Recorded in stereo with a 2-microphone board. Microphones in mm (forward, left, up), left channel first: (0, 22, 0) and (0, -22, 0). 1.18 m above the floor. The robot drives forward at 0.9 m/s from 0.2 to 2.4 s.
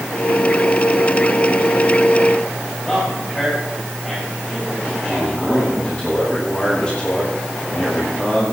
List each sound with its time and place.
2.9 s a man speaking: 10° left (ahead or behind), 6 m
5.0 s a man speaking: 20° left (ahead or behind), 10 m